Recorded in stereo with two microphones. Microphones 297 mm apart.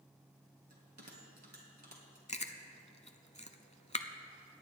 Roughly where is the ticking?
I don't hear ticking.